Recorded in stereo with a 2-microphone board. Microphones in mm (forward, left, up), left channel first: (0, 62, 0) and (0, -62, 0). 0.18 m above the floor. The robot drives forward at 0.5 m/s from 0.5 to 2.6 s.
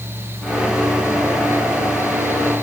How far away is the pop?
No pop in this recording.